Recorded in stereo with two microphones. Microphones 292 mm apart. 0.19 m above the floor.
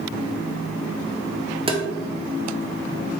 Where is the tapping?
20° right (ahead or behind), 0.6 m.